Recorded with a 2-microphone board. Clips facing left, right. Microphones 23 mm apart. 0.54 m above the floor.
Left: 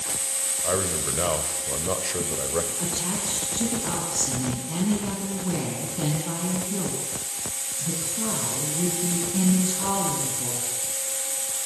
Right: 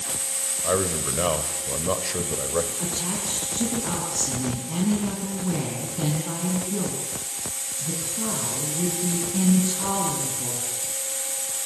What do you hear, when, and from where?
0.6 s a man speaking: 15° right (ahead or behind), 2 m
2.8 s a woman speaking: 10° left (ahead or behind), 6 m